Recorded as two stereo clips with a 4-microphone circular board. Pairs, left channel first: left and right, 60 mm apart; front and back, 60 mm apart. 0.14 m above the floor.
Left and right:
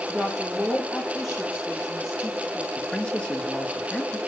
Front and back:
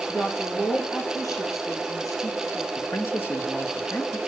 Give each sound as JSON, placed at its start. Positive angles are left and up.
{"t": 0.1, "sound": "a woman speaking", "azimuth_deg": 0, "distance_m": 7.0}
{"t": 2.8, "sound": "a man speaking", "azimuth_deg": 15, "distance_m": 2.5}